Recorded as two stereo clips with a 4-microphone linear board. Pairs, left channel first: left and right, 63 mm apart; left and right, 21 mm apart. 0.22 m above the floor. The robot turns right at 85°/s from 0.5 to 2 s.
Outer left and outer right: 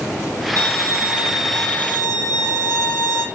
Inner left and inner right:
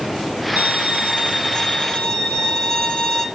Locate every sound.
0.6 s a violin: 75° right, 6 m; by 3.3 s 45° left, 6 m